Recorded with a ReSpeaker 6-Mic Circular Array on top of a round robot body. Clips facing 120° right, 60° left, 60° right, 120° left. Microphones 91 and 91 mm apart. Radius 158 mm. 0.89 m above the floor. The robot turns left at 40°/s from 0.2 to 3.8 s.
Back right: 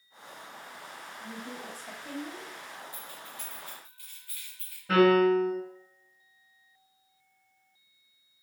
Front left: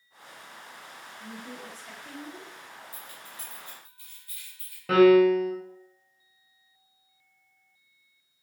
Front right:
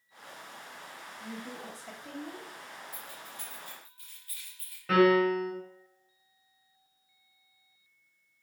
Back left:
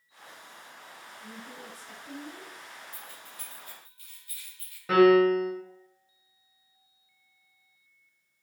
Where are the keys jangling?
25° left, 1.8 m; by 4.8 s 10° right, 1.8 m.